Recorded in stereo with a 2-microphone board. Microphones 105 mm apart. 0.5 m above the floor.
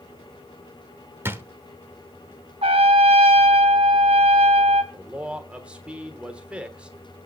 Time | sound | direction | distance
1.2 | a drawer | 20° right (ahead or behind) | 0.9 m
2.6 | a trumpet | 75° right (ahead or behind) | 1.8 m
4.9 | a man speaking | 10° right (ahead or behind) | 1.4 m